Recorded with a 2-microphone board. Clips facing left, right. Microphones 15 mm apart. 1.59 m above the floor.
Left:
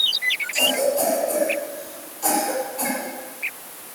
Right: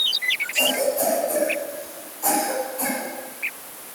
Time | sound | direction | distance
0.5 | a cough | 35° left (ahead or behind) | 8.5 m